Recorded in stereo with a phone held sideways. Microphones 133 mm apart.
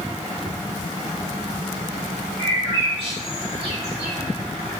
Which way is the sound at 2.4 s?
45° right (ahead or behind).